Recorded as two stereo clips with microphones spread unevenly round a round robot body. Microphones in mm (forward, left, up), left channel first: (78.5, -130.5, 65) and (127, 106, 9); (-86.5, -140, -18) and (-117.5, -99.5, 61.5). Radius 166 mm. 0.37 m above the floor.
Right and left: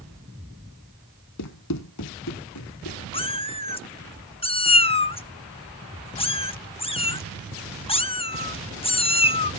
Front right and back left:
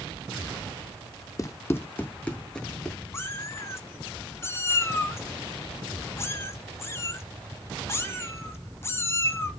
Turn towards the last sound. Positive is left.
turn(degrees=-30)